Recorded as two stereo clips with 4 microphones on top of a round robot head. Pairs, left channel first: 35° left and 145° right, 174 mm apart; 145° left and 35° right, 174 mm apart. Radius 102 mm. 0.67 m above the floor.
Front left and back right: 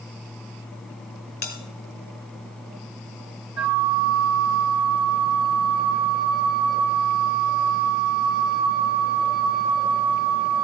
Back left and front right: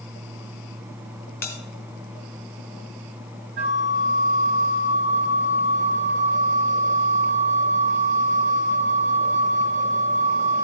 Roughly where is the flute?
Ahead right.